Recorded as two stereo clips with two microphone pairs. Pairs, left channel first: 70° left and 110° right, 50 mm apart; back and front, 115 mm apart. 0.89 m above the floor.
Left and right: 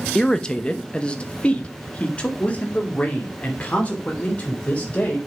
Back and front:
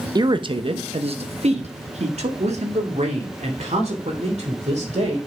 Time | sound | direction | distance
0.1 | a man speaking | straight ahead | 0.7 m